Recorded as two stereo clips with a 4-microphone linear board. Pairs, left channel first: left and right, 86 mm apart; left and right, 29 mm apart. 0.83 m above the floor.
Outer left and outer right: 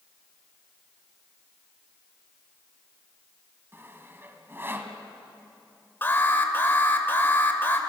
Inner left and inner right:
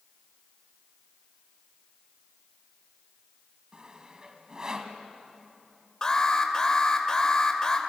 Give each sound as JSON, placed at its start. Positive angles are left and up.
{"t": 3.7, "sound": "sawing", "side_deg": -25, "distance_m": 1.9}
{"t": 6.0, "sound": "an alarm", "side_deg": 25, "distance_m": 2.0}